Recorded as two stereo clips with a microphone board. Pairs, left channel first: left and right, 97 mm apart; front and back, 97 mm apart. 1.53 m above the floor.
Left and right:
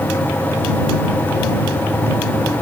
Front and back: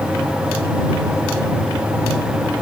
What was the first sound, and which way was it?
Only background noise.